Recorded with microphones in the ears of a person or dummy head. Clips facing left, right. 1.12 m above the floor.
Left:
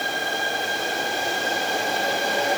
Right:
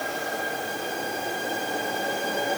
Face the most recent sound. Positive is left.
No sound to turn to.